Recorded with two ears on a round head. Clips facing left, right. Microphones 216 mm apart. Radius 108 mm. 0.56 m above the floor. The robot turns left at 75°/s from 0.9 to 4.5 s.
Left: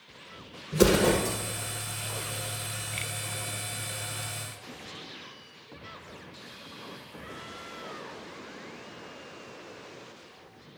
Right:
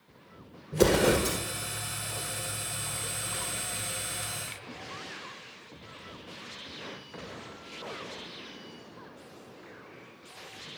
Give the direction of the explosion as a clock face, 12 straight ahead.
12 o'clock.